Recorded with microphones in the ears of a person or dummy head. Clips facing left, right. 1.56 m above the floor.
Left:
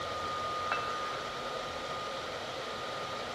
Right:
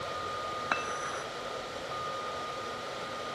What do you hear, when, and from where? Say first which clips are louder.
0.7 s dishes clattering: right 1 dB; 55° right (ahead or behind), 1.7 m